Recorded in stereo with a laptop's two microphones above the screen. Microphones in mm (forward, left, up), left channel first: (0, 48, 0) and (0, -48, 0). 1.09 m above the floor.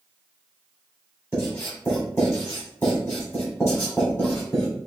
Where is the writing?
30° left (ahead or behind), 1.9 m.